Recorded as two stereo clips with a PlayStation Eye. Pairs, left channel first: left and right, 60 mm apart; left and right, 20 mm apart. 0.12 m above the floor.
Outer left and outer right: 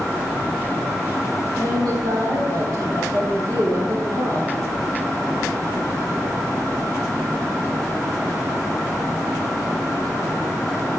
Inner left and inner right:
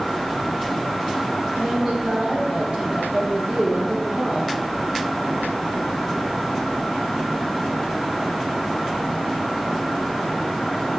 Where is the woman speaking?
60° right (ahead or behind), 3.5 m.